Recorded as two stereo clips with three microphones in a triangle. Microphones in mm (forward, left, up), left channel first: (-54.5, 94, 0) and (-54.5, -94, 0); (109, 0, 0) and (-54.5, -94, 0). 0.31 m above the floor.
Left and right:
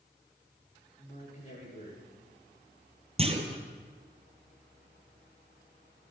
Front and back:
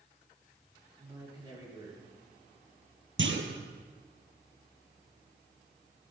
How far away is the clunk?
About 1.5 m.